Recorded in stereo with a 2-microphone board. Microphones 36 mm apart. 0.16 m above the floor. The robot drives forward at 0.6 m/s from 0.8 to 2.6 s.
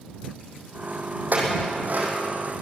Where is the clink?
60° right (ahead or behind), 6 m; by 2.1 s 65° right (ahead or behind), 6 m.